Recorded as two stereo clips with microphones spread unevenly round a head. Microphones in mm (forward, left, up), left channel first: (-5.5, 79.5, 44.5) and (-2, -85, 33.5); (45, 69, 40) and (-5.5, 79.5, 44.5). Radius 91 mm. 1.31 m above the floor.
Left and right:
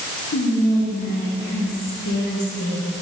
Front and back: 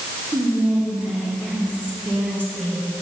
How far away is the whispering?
About 1.3 m.